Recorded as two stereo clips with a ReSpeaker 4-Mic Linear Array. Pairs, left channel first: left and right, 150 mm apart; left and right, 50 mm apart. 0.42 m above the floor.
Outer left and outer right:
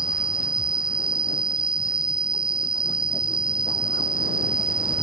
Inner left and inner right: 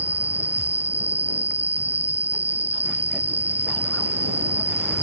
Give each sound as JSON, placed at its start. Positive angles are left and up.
{"t": 0.0, "sound": "an insect", "side_deg": -35}